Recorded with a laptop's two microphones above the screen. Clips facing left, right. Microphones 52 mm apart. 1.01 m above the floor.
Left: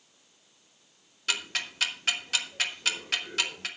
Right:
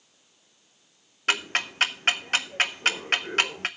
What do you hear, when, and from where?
1.3 s ticking: 45° right (ahead or behind), 0.7 m